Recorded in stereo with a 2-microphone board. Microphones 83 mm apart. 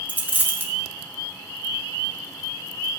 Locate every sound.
0.1 s a dropped coin: 20° right (ahead or behind), 0.9 m